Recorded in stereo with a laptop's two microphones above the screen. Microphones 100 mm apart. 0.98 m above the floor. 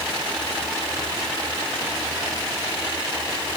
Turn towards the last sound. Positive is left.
No sound to turn to.